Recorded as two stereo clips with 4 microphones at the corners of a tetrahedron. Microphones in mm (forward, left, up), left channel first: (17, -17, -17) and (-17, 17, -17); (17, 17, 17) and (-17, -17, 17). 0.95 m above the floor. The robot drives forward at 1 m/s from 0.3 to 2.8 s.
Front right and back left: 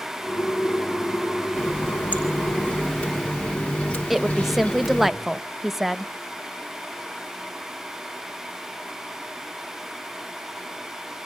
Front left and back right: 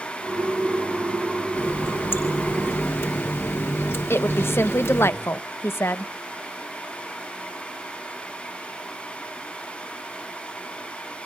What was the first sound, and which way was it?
A running tap, 10° left.